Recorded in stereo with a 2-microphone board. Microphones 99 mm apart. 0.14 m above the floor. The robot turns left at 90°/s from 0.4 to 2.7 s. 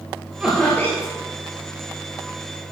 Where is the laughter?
165° right, 3 m; by 1.1 s 130° left, 3 m.